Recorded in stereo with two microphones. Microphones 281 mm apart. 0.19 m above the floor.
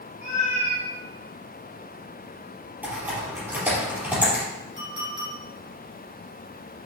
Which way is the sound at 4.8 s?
15° right (ahead or behind).